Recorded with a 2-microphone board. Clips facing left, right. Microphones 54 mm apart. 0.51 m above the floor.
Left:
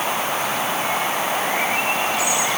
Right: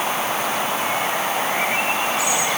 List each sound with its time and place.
Only background noise.